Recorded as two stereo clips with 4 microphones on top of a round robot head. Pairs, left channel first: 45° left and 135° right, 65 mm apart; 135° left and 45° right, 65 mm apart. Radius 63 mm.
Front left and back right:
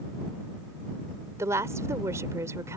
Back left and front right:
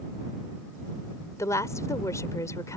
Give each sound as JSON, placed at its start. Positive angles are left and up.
{"t": 1.4, "sound": "a woman speaking", "azimuth_deg": 180}